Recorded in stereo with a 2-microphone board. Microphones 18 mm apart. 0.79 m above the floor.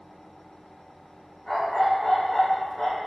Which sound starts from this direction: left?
A dog barking, at 1.5 s.